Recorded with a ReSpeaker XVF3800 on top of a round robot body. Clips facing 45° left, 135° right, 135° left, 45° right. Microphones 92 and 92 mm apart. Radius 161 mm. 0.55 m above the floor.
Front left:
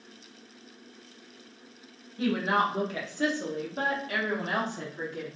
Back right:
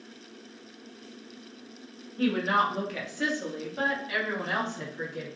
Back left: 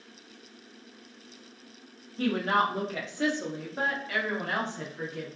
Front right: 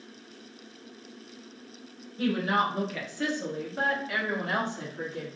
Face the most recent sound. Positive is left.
turn(degrees=15)